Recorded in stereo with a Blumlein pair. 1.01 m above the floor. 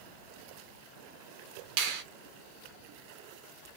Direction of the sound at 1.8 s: 45° right.